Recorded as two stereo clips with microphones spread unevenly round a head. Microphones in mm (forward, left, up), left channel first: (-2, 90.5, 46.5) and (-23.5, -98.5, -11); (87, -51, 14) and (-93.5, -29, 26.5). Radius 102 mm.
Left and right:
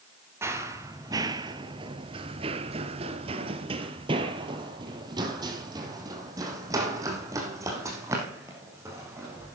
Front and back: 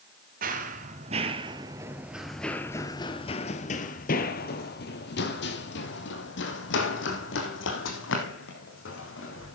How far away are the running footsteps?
About 1.4 m.